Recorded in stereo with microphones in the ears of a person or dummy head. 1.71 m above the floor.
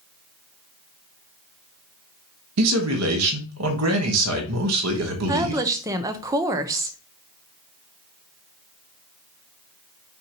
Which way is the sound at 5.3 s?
20° right (ahead or behind).